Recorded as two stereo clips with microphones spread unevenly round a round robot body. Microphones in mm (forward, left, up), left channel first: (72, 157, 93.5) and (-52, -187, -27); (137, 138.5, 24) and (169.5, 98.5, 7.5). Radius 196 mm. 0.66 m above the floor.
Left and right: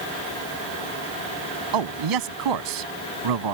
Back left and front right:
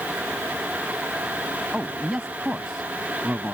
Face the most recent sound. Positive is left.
turn(degrees=-135)